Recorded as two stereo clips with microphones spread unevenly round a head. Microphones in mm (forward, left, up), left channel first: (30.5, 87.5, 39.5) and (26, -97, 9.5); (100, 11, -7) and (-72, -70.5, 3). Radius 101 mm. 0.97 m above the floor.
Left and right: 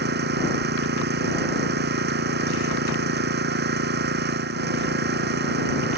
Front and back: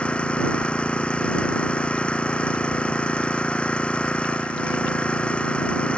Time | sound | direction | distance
0.0 | an engine running | 60° right | ?